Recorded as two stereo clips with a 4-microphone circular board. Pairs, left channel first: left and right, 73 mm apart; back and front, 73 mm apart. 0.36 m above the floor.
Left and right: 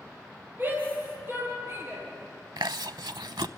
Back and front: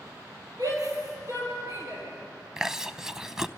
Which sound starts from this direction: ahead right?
A shout, at 0.6 s.